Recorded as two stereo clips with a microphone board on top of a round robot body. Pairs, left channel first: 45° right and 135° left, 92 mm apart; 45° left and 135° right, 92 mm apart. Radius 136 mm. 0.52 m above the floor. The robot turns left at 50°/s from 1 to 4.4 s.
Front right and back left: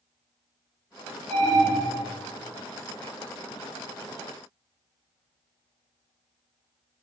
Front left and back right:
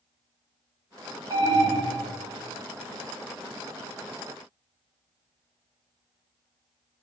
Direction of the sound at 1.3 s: 125° right.